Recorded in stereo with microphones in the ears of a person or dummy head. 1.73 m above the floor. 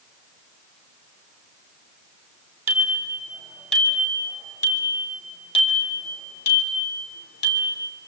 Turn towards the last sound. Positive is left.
turn(degrees=60)  # may be behind; listen again after turning